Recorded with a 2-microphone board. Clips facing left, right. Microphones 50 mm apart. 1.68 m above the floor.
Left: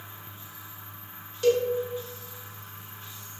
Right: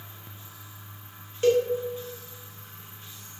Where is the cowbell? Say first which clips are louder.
Right 1 dB; 30° right (ahead or behind), 0.8 m.